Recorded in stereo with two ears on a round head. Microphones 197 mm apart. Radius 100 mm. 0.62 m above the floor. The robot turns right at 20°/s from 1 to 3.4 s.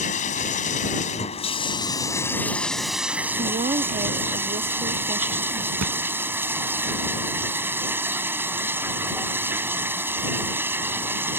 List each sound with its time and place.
0.0 s running water: 145° left; by 11.4 s 170° right
3.3 s a woman speaking: 30° right (ahead or behind)
5.8 s a thud: 80° right